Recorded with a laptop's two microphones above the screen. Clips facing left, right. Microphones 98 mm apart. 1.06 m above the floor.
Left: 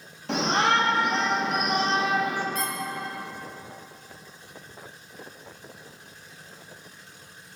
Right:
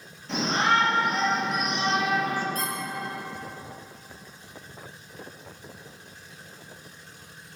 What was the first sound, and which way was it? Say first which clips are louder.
A shout: left 1 dB; 70° left (ahead or behind).